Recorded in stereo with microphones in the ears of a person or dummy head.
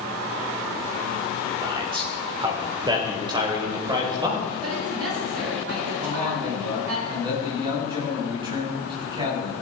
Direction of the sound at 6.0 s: 20° right (ahead or behind).